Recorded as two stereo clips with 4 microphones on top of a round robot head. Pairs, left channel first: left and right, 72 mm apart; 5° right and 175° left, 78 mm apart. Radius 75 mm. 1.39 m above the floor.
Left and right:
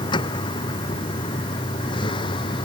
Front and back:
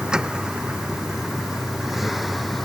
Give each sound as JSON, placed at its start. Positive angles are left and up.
{"t": 0.0, "sound": "a vehicle", "azimuth_deg": 95}